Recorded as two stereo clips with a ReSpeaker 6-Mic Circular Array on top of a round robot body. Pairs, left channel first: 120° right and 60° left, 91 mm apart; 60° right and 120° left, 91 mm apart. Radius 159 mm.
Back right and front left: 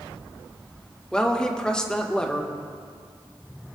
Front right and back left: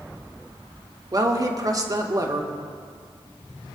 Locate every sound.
1.1 s a woman speaking: 160° left, 1.6 m